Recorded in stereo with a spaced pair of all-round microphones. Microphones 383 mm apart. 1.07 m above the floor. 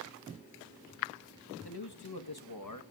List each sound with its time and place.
1.6 s a man speaking: 70° left (ahead or behind), 1.6 m; by 2.8 s 50° left (ahead or behind), 1.4 m